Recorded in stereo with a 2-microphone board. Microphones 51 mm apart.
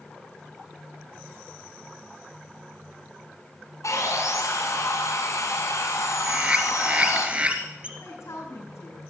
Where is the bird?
25° right (ahead or behind), 2.5 m.